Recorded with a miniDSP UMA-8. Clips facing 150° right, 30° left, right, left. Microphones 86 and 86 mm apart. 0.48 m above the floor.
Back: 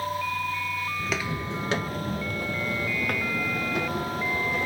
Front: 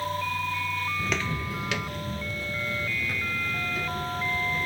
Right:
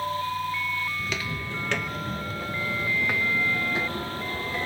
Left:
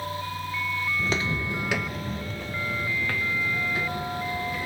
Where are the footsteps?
115° left, 0.5 m; by 4.7 s 155° right, 2.0 m.